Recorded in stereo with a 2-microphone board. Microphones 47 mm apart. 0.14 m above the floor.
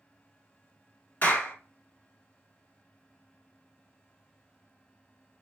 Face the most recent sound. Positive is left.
turn(degrees=35)  # may be behind; listen again after turning